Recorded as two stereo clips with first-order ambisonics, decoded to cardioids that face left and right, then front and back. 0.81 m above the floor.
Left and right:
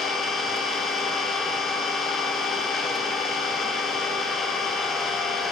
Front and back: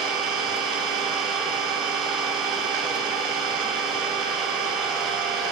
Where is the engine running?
155° left, 1.7 m.